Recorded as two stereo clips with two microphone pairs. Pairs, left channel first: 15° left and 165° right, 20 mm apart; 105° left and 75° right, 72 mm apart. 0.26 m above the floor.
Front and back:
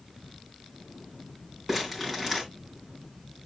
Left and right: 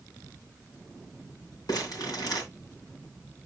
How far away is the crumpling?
About 3 m.